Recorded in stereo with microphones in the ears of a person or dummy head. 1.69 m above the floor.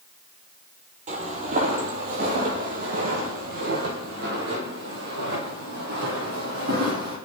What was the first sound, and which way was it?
Footsteps, 35° right (ahead or behind).